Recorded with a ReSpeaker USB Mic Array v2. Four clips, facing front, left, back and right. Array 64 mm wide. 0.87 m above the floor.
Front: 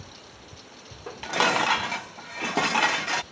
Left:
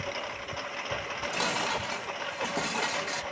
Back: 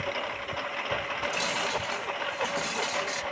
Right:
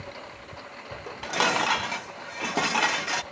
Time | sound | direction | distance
0.0 | a lawn mower | 160° left | ?
1.1 | dishes clattering | 35° right | ?